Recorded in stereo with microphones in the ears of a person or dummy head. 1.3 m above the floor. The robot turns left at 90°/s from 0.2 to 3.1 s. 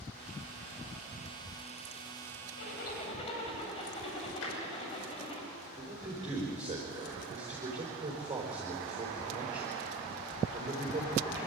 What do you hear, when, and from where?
2.6 s a zipper: 80° left, 5.5 m; by 5.4 s 30° left, 5.5 m
4.4 s tapping: 85° left, 5 m
5.8 s a man speaking: 25° right (ahead or behind), 4.5 m